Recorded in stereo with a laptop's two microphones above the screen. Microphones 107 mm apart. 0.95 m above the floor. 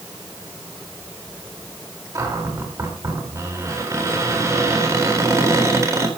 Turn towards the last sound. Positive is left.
turn(degrees=-30)  # may be behind; listen again after turning